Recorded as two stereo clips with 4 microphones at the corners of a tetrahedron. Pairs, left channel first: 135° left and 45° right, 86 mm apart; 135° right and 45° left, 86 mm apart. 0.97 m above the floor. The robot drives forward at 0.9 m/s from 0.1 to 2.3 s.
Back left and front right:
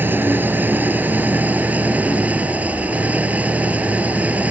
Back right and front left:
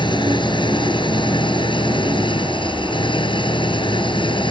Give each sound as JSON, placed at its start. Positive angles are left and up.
{"t": 0.0, "sound": "an engine running", "azimuth_deg": -110}